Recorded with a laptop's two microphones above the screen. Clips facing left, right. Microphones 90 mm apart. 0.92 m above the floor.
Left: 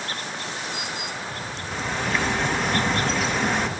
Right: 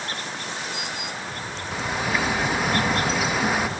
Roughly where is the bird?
Centre.